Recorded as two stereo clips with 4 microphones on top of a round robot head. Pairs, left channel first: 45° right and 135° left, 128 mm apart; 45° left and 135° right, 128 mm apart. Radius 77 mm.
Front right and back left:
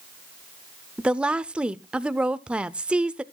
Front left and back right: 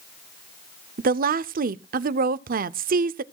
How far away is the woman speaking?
About 0.5 m.